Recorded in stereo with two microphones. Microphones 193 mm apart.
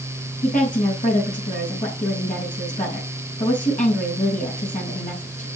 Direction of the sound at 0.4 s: 45° left (ahead or behind).